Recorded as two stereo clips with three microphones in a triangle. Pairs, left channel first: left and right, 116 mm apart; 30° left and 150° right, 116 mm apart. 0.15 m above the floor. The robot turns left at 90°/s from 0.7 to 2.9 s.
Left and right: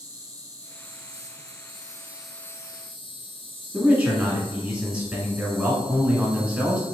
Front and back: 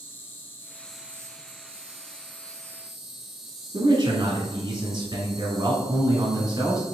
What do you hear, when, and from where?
0.0 s an insect: 40° right, 0.8 m; by 6.9 s 125° left, 0.8 m
3.7 s a man speaking: 165° right, 1.4 m